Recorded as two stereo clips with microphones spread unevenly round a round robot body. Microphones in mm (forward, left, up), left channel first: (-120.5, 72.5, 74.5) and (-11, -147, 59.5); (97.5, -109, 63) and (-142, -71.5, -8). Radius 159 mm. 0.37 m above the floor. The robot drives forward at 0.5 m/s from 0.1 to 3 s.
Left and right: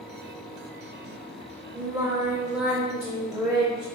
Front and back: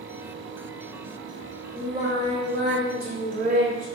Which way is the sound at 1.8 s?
130° right.